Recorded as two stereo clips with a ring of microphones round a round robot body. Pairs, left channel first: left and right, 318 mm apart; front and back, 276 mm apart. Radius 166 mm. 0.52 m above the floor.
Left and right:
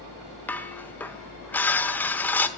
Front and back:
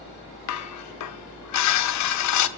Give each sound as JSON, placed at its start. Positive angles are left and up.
{"t": 0.5, "sound": "dishes clattering", "azimuth_deg": 5, "distance_m": 1.0}